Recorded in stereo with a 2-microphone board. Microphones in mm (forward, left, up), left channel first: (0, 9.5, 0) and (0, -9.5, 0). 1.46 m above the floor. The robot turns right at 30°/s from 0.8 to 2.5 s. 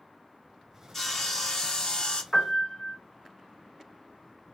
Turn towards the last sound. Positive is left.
turn(degrees=35)  # may be behind; listen again after turning